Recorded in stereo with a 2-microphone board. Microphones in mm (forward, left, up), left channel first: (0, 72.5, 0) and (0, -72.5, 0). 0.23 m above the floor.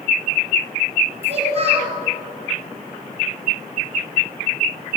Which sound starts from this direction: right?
A child speaking, at 1.2 s.